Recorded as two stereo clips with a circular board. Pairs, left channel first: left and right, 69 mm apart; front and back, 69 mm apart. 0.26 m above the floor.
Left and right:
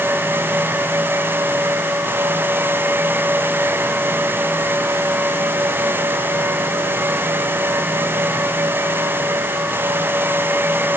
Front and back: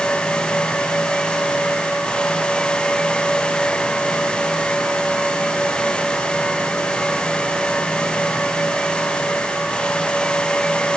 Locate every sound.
Only background noise.